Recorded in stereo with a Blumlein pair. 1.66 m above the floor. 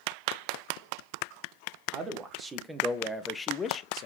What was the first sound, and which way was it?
A man speaking, 20° right.